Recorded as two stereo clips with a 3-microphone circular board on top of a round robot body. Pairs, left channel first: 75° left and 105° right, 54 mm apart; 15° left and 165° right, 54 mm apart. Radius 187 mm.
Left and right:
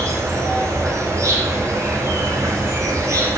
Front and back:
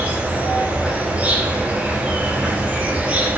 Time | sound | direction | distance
0.0 | an insect | 100° right | 3.5 m